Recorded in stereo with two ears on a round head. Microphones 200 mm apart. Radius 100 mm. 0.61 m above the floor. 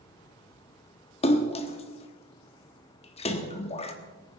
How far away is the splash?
About 1.2 m.